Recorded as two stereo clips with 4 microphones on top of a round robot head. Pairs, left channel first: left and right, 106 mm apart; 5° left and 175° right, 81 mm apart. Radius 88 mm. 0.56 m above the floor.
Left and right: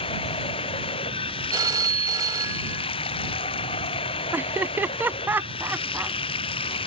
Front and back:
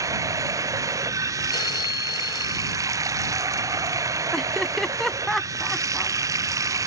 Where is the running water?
135° left.